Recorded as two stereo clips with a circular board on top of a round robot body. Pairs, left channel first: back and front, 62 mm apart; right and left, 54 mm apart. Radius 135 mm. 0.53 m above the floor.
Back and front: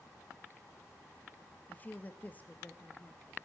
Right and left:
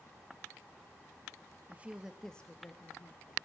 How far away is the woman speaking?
About 1.1 m.